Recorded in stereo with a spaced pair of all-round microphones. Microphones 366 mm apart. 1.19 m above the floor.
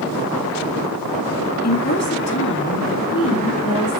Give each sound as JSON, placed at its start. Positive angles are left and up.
{"t": 1.6, "sound": "a woman speaking", "side_deg": 40, "distance_m": 2.0}